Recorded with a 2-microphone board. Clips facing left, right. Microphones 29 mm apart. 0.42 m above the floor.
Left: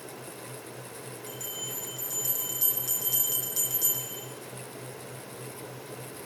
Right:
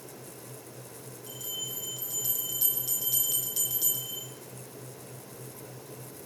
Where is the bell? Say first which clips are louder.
Right 2 dB; 20° right (ahead or behind), 4.5 m.